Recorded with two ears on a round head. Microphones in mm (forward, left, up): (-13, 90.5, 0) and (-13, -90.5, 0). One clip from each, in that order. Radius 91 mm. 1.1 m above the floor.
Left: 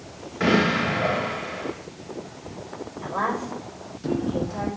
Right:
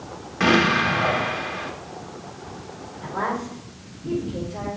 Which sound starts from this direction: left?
A woman speaking, at 3.0 s.